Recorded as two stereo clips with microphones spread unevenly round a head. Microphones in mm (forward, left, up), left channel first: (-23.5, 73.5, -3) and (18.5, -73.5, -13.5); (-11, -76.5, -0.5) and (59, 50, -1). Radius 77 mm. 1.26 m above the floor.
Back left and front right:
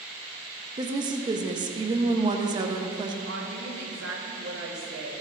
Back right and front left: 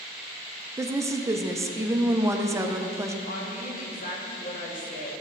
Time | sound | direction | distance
0.8 | a woman speaking | 10° right | 0.6 m
3.3 | a woman speaking | 85° right | 1.7 m